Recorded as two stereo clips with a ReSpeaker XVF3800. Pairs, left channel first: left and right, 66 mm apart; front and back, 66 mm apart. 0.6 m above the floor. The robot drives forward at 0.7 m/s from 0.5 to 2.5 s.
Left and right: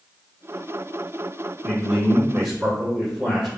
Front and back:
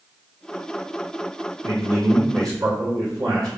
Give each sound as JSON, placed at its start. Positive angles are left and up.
{"t": 1.6, "sound": "a man speaking", "azimuth_deg": -165, "distance_m": 1.8}